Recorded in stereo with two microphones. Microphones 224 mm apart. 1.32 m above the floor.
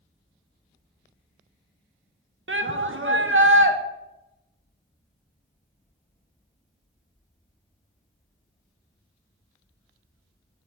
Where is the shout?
55° right (ahead or behind), 0.7 m.